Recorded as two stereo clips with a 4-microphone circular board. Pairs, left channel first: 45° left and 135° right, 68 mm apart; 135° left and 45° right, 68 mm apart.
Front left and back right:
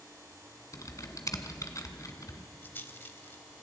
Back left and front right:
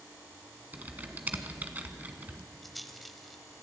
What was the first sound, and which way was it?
Typing on a keyboard, 15° left.